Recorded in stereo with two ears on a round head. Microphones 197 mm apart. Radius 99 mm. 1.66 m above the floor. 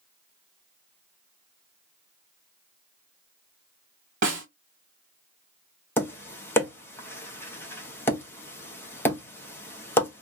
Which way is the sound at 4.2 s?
35° right (ahead or behind).